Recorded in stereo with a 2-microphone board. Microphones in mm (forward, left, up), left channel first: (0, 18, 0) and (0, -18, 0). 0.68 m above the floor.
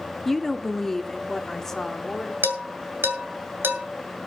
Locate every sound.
0.2 s a woman speaking: 5° left (ahead or behind), 0.6 m; by 2.3 s 15° left (ahead or behind), 1.8 m
2.4 s dishes clattering: 80° right, 2.5 m